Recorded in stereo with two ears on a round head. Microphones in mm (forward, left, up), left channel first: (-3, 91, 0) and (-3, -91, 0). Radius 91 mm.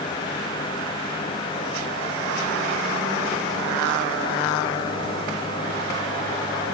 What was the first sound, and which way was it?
Only background noise.